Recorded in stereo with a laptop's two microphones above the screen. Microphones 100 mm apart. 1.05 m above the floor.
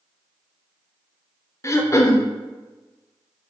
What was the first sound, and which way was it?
Throat clearing, 30° left (ahead or behind).